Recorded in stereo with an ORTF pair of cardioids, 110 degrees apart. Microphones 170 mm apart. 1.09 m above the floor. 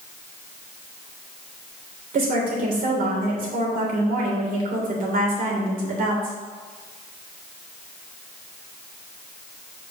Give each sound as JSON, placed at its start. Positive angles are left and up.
{"t": 2.1, "sound": "a woman speaking", "azimuth_deg": -55, "distance_m": 3.5}